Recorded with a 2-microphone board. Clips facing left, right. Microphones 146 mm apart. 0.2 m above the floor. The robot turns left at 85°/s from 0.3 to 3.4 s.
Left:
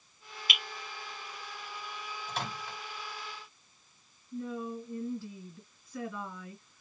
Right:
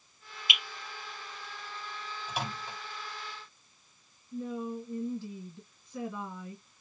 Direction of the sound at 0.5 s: 20° right (ahead or behind).